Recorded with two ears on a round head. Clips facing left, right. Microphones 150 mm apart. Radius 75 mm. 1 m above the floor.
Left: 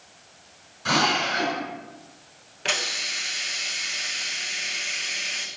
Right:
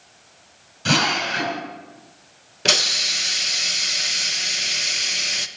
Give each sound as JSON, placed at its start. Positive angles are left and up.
{"t": 0.8, "sound": "a drill", "side_deg": -35, "distance_m": 5.0}
{"t": 2.6, "sound": "a hiss", "side_deg": -45, "distance_m": 1.0}